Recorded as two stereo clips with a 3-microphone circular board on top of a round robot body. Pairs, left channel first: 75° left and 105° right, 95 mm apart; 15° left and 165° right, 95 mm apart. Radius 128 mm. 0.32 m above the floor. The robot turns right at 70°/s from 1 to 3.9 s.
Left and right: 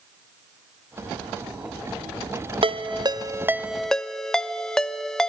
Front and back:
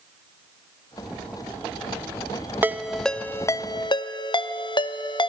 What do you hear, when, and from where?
2.6 s a ringtone: 100° right, 0.6 m; by 5.3 s 10° right, 0.6 m